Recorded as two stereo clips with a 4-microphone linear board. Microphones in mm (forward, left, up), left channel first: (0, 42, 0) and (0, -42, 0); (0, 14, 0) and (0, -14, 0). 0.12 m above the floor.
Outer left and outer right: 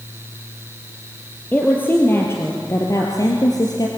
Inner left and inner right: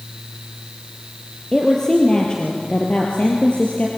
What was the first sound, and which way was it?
A woman speaking, 20° left (ahead or behind).